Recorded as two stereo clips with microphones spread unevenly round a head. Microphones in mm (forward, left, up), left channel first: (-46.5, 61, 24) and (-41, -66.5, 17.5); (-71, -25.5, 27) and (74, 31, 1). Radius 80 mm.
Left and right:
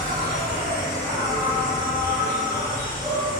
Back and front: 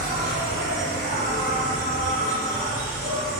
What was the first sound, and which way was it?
An insect, 25° right.